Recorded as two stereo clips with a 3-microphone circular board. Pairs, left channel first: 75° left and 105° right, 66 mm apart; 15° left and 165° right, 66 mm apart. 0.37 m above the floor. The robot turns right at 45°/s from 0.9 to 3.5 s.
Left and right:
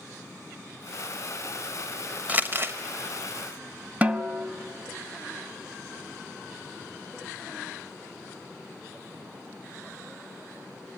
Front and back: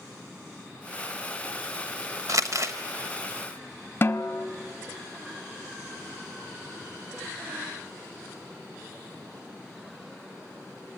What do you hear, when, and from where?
2.3 s crumpling: 165° right, 1.0 m; by 2.8 s 145° right, 1.0 m
4.0 s a snare drum: 40° right, 0.6 m